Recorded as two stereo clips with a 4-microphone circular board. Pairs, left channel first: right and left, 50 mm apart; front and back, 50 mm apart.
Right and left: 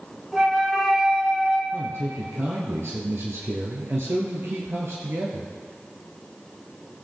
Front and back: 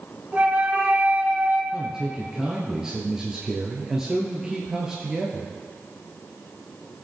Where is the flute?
160° left, 1.9 m.